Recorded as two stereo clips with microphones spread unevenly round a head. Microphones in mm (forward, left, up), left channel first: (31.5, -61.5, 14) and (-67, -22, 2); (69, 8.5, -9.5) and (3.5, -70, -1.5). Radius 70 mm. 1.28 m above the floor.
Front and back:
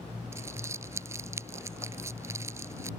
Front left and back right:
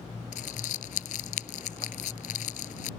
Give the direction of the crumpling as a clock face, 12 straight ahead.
9 o'clock.